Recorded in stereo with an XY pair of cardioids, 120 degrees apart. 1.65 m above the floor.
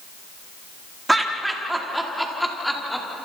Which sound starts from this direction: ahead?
Laughter, at 1.1 s.